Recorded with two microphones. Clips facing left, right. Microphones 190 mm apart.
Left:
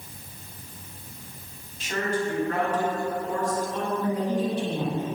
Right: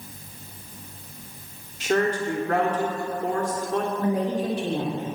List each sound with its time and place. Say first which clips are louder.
1.8 s a woman speaking: right 5 dB; 80° right, 2.5 m
4.0 s a woman speaking: right 1 dB; 80° right, 3 m